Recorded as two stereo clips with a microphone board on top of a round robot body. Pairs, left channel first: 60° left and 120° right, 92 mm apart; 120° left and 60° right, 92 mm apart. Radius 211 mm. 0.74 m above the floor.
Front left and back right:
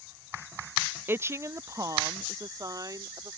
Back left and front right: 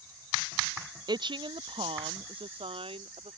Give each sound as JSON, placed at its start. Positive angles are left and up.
{"t": 1.1, "sound": "a woman speaking", "azimuth_deg": -60}